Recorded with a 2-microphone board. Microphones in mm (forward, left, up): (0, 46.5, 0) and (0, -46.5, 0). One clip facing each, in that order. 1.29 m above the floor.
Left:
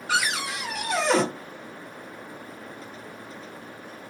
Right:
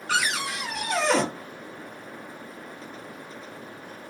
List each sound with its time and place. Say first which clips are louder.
0.1 s a cupboard door: even; 5° left (ahead or behind), 0.8 m